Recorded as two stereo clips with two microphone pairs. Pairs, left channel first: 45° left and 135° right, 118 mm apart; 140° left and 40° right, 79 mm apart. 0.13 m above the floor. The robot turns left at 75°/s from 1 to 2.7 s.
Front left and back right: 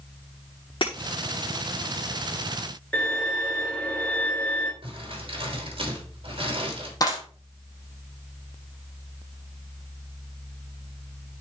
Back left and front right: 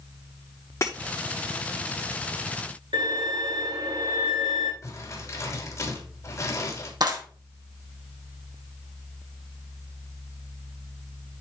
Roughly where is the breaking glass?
Left.